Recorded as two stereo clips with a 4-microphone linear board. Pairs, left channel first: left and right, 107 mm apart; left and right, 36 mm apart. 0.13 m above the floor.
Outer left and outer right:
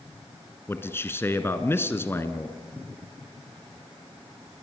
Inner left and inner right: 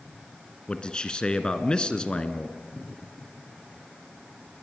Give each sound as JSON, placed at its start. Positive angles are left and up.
{"t": 0.7, "sound": "a man speaking", "side_deg": 20, "distance_m": 1.6}